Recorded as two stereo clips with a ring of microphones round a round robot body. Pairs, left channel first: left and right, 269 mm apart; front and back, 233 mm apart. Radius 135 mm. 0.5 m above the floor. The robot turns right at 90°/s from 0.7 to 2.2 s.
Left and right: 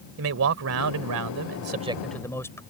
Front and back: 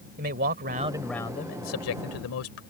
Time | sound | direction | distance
0.2 | a man speaking | 125° right | ?